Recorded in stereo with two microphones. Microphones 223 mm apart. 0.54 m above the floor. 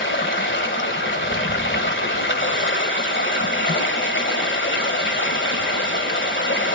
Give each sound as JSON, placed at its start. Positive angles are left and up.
{"t": 0.0, "sound": "running water", "side_deg": 60, "distance_m": 1.8}